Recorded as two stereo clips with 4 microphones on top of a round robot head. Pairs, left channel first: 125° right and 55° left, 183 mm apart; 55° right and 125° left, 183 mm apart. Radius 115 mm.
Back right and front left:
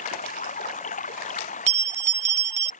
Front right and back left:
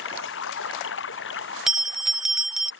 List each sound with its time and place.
0.0 s running water: 70° right
1.7 s a bell: 40° left